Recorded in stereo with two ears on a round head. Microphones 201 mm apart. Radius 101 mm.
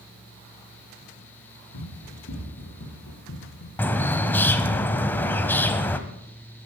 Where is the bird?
10° left (ahead or behind), 1.1 m.